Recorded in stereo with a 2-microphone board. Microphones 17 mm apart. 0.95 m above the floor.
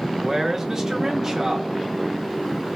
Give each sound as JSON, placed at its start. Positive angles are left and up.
{"t": 0.2, "sound": "a man speaking", "side_deg": -30, "distance_m": 0.6}